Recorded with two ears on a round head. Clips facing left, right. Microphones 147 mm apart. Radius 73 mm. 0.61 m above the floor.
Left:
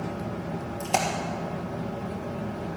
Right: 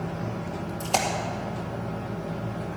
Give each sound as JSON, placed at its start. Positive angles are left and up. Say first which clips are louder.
{"t": 0.8, "sound": "a splash", "louder": "even", "side_deg": 0, "distance_m": 2.0}